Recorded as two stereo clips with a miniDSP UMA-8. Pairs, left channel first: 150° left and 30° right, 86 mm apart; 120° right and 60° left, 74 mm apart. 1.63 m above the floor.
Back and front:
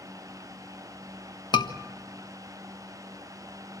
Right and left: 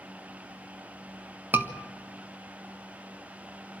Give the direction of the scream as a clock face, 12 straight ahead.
8 o'clock.